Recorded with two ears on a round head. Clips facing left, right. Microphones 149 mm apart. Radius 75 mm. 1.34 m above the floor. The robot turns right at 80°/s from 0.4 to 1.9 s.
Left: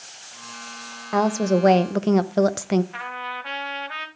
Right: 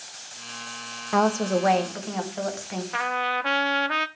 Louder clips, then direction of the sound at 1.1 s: Left 2 dB; straight ahead.